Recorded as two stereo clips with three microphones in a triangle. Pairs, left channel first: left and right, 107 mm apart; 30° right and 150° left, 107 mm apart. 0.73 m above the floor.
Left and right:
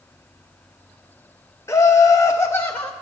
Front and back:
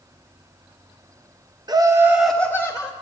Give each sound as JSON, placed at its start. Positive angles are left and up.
{"t": 1.7, "sound": "laughter", "azimuth_deg": 140, "distance_m": 0.6}